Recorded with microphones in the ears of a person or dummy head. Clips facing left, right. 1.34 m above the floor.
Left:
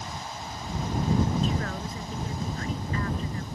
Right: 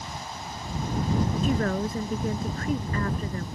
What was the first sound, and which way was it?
A woman speaking, 45° right (ahead or behind).